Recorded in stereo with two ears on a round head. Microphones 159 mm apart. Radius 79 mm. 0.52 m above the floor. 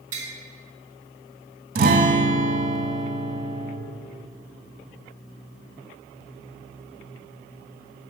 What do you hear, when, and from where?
0.1 s tapping: 45° right (ahead or behind), 1.6 m
1.8 s a guitar: 50° right (ahead or behind), 0.6 m